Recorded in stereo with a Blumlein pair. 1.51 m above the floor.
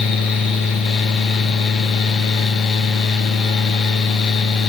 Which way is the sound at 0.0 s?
30° left.